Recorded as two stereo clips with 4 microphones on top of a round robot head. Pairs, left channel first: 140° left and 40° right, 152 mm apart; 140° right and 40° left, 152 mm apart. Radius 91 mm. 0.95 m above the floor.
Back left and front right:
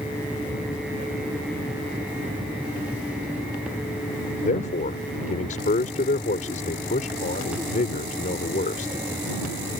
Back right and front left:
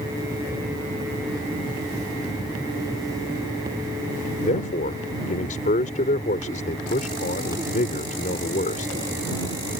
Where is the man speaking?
Straight behind.